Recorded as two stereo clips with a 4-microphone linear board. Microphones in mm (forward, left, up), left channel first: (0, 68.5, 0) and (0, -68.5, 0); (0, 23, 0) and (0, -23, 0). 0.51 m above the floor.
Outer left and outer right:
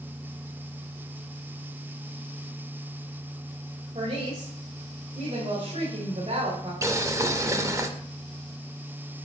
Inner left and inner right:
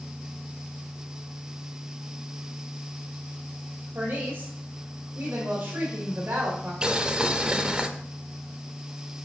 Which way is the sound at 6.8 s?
25° right (ahead or behind).